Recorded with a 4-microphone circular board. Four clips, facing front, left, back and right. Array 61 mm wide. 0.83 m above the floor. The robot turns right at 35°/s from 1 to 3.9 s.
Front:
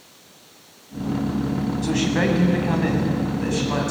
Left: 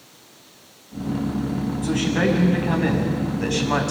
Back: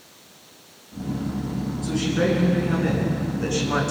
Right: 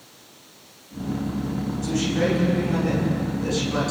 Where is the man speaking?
20° left, 5.5 m; by 3.9 s 90° left, 5.5 m.